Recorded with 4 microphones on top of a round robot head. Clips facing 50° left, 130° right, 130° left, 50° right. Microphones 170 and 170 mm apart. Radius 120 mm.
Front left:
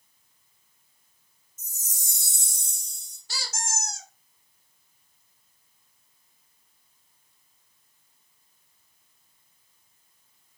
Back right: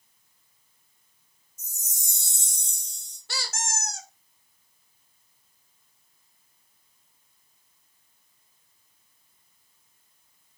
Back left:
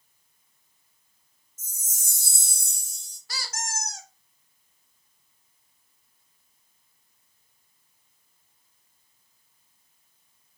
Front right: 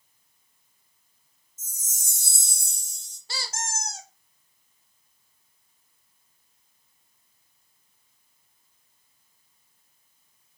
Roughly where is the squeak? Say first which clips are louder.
Back right 2 dB, front right 1 dB; right.